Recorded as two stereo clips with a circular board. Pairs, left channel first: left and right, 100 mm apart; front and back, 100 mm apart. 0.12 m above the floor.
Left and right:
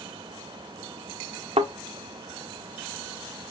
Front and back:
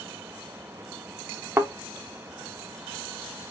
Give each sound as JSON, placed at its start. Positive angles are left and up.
{"t": 1.6, "sound": "a thud", "azimuth_deg": -115, "distance_m": 0.8}